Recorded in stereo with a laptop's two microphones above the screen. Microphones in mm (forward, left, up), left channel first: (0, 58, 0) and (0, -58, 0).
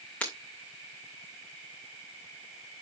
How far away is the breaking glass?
About 2.5 m.